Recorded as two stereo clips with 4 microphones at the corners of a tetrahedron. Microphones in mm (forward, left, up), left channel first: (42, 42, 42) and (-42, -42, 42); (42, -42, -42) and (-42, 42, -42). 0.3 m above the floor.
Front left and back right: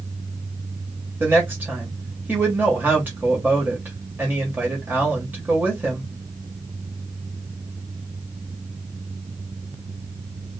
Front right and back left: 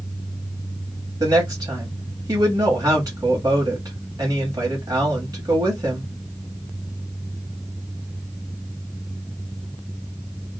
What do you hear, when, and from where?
1.2 s a woman speaking: 160° left, 1.2 m